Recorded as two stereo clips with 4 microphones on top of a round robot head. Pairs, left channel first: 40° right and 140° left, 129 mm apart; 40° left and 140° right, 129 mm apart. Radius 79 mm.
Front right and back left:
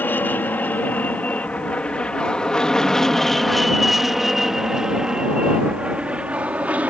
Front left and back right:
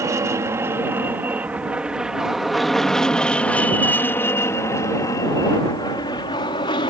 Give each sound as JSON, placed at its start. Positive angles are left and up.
{"t": 0.0, "sound": "an aircraft", "azimuth_deg": -100}